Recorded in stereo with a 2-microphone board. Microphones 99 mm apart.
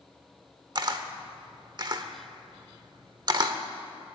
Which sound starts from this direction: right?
A camera shutter, at 0.8 s.